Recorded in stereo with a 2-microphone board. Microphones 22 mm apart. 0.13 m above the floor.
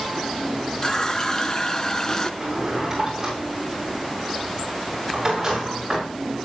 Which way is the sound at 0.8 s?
25° left (ahead or behind).